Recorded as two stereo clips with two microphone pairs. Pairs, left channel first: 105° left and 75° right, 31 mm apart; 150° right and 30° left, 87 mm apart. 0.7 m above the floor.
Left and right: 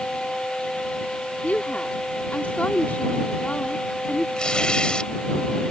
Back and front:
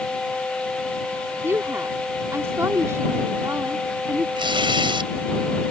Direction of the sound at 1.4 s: 85° left.